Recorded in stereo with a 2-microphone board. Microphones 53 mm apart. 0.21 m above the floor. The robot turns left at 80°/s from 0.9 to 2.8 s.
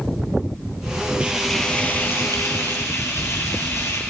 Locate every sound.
1.2 s frying: 155° right, 3 m; by 4.0 s 75° left, 3 m